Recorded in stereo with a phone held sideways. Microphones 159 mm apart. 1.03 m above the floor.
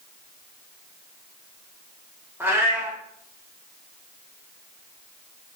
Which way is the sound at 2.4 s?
15° right (ahead or behind).